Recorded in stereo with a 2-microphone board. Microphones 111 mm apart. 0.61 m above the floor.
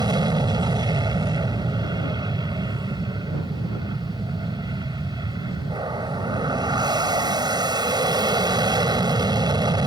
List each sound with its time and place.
0.0 s an aircraft: 40° right (ahead or behind)